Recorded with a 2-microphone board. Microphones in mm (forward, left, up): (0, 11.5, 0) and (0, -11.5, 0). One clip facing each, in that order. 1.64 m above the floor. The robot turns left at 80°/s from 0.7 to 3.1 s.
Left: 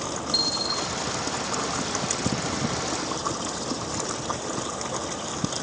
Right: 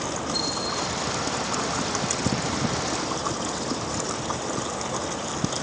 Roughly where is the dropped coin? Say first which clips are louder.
Left 5 dB; left.